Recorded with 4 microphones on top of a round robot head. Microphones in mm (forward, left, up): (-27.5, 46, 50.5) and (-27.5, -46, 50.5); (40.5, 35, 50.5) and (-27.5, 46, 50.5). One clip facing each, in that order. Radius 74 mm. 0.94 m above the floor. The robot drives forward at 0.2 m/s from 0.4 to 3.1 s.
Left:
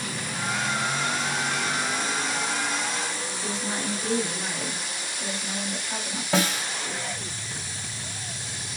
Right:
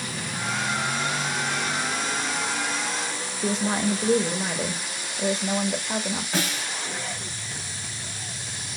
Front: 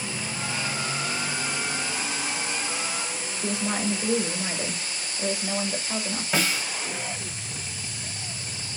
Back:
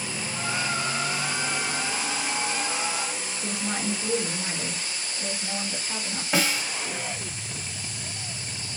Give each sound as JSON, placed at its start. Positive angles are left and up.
{"t": 3.4, "sound": "a woman speaking", "azimuth_deg": -90, "distance_m": 1.1}
{"t": 6.3, "sound": "a snare drum", "azimuth_deg": 95, "distance_m": 2.5}